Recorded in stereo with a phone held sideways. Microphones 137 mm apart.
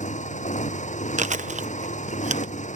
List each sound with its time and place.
0.0 s a motorcycle: 65° left (ahead or behind)
1.2 s chewing: 65° right (ahead or behind)